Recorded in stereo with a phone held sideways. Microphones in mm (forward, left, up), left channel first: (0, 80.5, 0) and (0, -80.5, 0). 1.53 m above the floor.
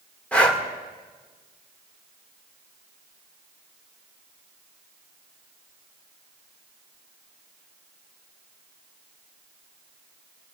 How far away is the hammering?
I don't hear hammering.